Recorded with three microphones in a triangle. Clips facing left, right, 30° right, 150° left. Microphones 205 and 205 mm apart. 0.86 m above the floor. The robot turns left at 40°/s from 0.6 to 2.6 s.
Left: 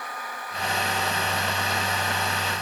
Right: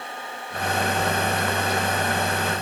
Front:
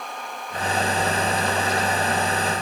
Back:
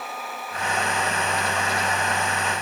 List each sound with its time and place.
Only background noise.